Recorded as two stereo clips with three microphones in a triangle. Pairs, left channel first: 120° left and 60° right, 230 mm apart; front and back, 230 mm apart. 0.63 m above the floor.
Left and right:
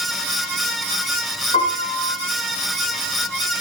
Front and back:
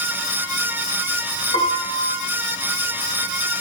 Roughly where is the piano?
Ahead left.